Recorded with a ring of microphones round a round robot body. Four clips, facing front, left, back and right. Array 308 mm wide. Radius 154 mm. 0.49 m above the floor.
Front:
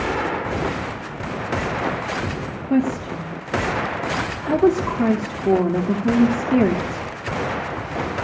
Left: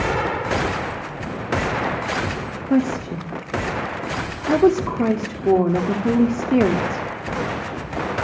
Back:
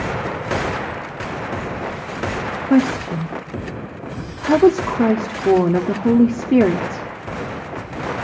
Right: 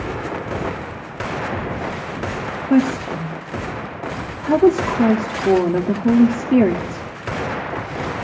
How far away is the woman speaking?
About 0.8 m.